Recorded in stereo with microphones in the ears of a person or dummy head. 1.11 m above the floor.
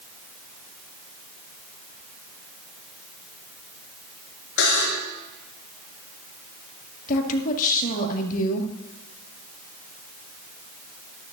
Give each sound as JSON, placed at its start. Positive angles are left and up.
{"t": 4.6, "sound": "a buzzer", "side_deg": 75, "distance_m": 4.5}
{"t": 7.1, "sound": "a woman speaking", "side_deg": 50, "distance_m": 1.8}